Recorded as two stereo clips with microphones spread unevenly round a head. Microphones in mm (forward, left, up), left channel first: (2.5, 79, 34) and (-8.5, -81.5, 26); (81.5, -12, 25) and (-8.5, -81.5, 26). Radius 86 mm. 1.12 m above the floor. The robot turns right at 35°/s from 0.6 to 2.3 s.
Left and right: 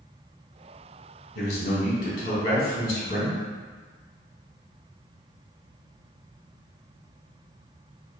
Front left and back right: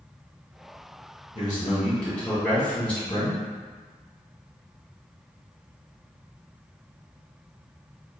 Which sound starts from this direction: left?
A man speaking, at 1.4 s.